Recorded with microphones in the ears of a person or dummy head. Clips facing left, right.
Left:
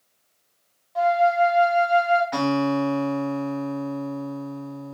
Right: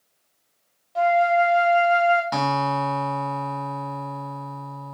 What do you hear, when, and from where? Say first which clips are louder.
0.9 s a flute: even; 30° right (ahead or behind), 0.8 m
2.3 s a guitar: left 3 dB; 60° right (ahead or behind), 1.1 m